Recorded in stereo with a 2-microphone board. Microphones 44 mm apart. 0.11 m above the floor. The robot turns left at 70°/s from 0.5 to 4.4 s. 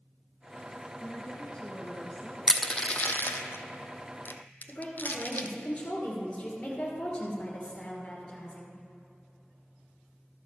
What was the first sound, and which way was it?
A woman speaking, 20° left (ahead or behind).